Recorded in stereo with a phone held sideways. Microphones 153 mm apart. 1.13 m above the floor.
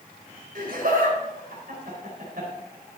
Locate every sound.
0.6 s laughter: 70° right (ahead or behind), 4.5 m